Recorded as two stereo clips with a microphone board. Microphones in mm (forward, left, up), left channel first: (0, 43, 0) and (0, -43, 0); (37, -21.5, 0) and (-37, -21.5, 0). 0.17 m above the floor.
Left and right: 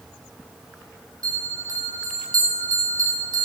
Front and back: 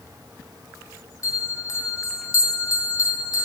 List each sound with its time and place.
1.2 s a bell: 45° right, 1.6 m